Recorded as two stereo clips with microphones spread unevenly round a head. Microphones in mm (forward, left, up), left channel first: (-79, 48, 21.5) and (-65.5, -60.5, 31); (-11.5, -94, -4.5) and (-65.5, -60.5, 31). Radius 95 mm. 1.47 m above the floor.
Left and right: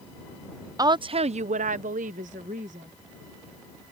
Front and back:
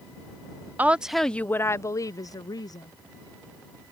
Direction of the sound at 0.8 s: 140° right.